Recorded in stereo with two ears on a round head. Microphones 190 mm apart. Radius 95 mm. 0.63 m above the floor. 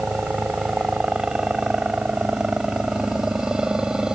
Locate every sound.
0.0 s a helicopter: 5° right (ahead or behind)